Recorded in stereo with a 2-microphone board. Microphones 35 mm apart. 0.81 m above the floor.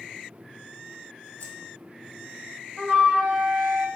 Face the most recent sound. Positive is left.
turn(degrees=-30)  # may be behind; listen again after turning